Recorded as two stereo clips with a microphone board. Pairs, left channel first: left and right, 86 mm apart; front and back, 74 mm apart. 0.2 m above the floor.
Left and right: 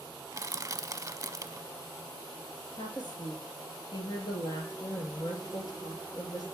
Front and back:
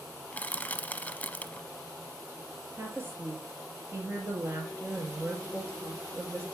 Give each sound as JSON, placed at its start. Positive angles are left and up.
{"t": 0.3, "sound": "crushing", "azimuth_deg": -60, "distance_m": 0.6}
{"t": 2.8, "sound": "a woman speaking", "azimuth_deg": 125, "distance_m": 3.5}